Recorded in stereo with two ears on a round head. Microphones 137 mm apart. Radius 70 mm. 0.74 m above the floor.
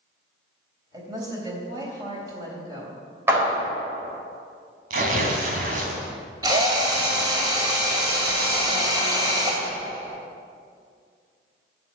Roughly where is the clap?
Centre.